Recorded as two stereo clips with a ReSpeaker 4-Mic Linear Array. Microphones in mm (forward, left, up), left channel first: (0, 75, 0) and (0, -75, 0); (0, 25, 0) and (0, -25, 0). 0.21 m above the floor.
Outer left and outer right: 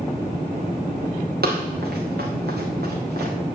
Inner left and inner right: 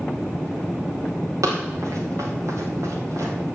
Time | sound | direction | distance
1.4 | running footsteps | 80° right | 4.5 m